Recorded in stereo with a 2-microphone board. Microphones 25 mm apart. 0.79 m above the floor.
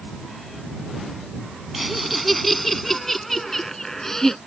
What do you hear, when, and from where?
1.7 s laughter: 5° right (ahead or behind); by 4.4 s 20° left (ahead or behind)